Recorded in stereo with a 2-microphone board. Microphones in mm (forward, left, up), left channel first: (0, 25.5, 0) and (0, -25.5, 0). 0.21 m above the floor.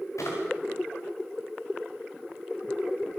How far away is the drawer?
About 8 m.